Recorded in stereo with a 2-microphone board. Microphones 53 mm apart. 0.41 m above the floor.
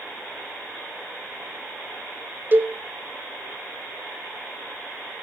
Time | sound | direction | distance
2.5 | a cowbell | 35° right (ahead or behind) | 1.5 m